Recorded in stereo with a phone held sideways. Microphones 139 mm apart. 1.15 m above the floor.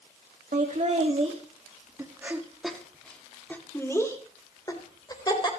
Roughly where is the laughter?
Right.